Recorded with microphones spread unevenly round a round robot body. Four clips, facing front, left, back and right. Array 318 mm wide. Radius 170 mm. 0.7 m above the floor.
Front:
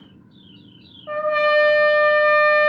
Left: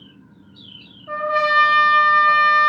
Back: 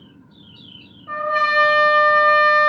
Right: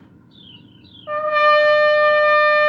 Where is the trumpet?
95° right, 2 m.